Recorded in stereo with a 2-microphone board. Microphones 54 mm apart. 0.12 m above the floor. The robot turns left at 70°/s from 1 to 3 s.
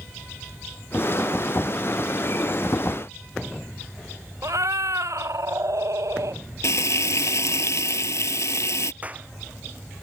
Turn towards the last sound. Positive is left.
turn(degrees=-25)  # may be behind; listen again after turning